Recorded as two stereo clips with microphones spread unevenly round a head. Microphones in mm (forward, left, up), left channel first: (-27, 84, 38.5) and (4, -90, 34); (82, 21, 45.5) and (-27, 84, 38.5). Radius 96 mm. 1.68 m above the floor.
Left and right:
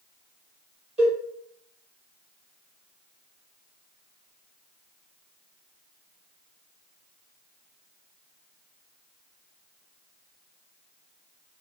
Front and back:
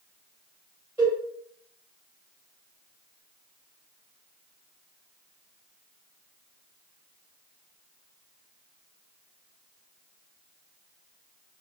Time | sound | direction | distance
1.0 | a cowbell | 130° right | 1.3 m